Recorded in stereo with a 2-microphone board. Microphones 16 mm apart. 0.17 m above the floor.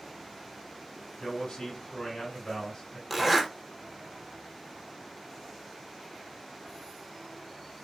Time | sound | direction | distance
1.2 | a man speaking | 55° left (ahead or behind) | 3 m
3.1 | a zipper | 10° right (ahead or behind) | 1.5 m